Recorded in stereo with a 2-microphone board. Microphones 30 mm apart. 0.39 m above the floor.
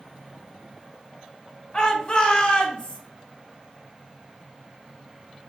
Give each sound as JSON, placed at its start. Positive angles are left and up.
{"t": 1.7, "sound": "a shout", "side_deg": 30, "distance_m": 1.2}